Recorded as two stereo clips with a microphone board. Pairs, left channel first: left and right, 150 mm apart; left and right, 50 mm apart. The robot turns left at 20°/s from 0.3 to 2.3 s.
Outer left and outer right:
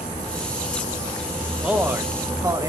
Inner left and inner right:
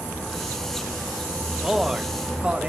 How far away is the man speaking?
About 0.7 m.